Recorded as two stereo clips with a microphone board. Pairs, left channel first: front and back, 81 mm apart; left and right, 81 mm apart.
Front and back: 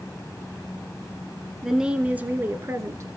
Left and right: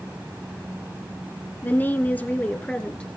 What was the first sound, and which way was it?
A woman speaking, 100° left.